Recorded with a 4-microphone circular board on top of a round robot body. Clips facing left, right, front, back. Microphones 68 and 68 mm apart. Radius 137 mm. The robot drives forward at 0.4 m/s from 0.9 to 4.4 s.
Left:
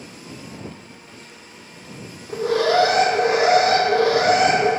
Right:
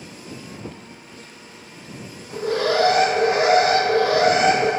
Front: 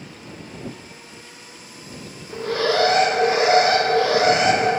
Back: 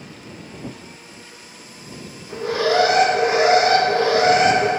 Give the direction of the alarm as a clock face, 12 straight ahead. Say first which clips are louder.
Left 3 dB, back 2 dB; 9 o'clock.